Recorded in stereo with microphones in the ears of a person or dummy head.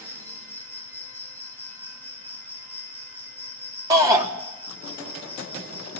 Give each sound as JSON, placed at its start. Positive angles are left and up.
{"t": 0.0, "sound": "an insect", "side_deg": 5, "distance_m": 0.8}
{"t": 3.9, "sound": "a shout", "side_deg": -20, "distance_m": 3.0}